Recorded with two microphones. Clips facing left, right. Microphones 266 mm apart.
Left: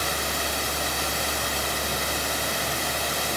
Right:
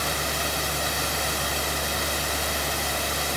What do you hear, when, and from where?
Only background noise.